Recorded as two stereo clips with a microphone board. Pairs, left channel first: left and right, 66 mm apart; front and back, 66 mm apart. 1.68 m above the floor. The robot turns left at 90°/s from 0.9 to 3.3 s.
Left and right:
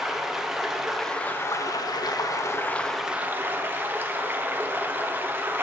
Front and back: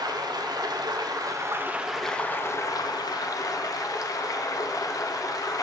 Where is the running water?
175° right, 0.8 m; by 5.6 s 30° right, 0.8 m.